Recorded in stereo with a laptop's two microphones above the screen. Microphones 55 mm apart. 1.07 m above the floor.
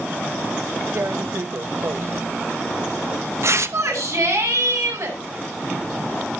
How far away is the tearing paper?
About 0.8 m.